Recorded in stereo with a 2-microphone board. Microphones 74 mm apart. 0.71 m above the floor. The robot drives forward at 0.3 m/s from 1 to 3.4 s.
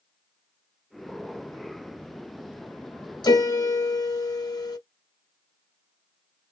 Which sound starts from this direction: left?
A piano, at 3.2 s.